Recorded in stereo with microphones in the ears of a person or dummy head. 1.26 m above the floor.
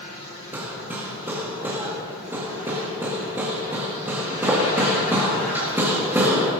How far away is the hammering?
About 1.9 m.